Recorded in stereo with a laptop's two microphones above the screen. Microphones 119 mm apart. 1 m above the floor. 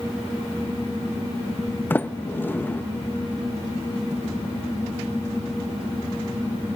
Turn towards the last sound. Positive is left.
turn(degrees=15)  # may be behind; listen again after turning